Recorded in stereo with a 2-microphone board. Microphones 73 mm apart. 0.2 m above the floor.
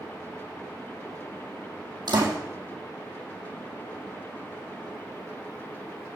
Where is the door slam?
65° right (ahead or behind), 4 m.